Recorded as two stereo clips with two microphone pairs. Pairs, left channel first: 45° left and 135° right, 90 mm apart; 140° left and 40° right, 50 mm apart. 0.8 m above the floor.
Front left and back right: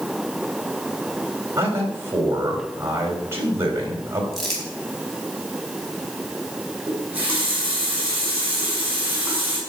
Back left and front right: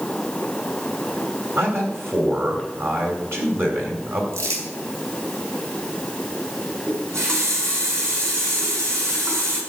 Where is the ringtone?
I don't hear a ringtone.